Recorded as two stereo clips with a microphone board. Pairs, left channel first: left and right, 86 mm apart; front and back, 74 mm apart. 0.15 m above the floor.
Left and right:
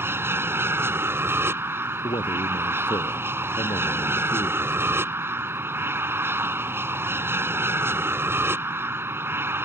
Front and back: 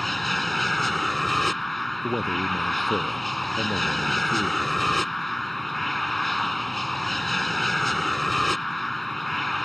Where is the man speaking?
90° left.